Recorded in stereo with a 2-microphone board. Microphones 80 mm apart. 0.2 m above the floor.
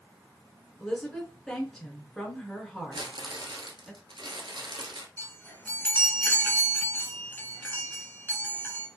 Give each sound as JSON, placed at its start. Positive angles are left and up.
{"t": 0.8, "sound": "a woman speaking", "side_deg": 5, "distance_m": 1.9}
{"t": 2.9, "sound": "crumpling", "side_deg": -80, "distance_m": 1.0}
{"t": 5.2, "sound": "a chime", "side_deg": 25, "distance_m": 1.3}